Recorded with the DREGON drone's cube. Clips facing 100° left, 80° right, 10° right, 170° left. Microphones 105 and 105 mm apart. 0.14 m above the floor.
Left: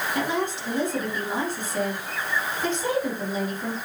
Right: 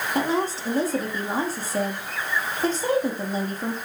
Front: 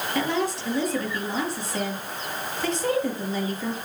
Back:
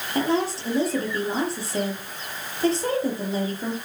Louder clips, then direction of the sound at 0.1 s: Right 4 dB, back 3 dB; 130° right.